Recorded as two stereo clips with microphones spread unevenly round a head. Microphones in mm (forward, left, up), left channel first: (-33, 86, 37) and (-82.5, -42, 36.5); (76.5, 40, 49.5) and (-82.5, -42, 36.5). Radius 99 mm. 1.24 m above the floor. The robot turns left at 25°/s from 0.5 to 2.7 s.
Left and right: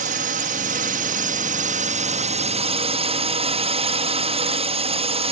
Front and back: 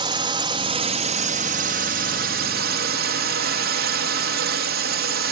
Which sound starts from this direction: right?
A drone, at 0.0 s.